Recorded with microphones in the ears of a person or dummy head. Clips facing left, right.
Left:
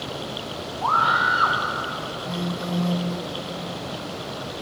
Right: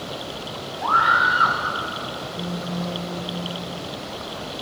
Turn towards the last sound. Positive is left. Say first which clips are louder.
# left 3 dB
turn(degrees=75)  # may be behind; listen again after turning